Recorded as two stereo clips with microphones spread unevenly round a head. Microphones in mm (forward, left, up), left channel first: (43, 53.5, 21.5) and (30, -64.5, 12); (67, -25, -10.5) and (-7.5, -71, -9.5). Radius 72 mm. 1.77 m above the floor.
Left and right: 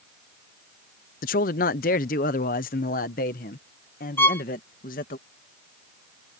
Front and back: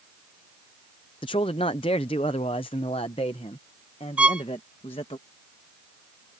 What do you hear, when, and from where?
1.2 s a man speaking: 85° left
4.2 s a violin: 145° left